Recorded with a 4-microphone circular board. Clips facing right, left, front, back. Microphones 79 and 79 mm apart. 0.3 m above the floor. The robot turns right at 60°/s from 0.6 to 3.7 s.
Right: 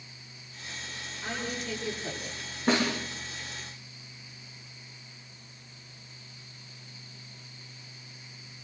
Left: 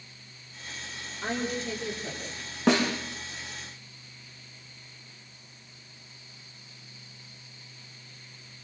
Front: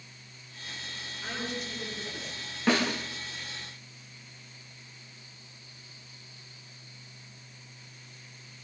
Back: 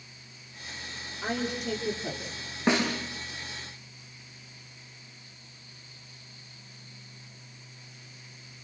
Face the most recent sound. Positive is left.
turn(degrees=170)